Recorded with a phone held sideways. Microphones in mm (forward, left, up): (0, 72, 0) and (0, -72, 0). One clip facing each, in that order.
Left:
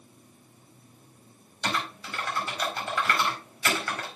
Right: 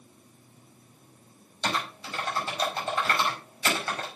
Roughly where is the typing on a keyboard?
Right.